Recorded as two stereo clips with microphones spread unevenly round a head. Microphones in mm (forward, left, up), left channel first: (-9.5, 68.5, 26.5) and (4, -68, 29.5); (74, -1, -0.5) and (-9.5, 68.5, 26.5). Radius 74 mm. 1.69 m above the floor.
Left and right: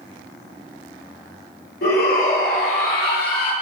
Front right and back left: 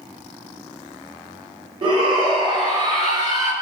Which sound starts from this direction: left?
A shout, at 1.8 s.